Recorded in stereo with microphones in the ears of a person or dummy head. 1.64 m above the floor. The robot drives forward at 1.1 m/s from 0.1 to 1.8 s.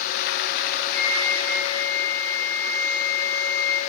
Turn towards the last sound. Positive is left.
turn(degrees=50)  # may be behind; listen again after turning